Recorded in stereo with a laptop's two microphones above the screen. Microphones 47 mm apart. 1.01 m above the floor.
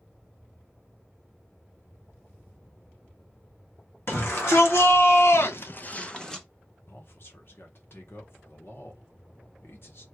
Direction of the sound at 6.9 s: 50° left (ahead or behind).